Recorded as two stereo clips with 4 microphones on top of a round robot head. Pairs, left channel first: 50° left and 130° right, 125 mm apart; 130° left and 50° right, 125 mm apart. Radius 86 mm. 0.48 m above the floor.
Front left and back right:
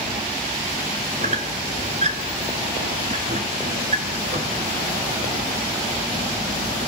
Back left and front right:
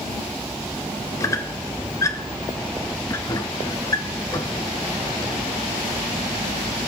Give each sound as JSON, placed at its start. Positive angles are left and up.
{"t": 1.2, "sound": "a squeak", "azimuth_deg": -165, "distance_m": 0.6}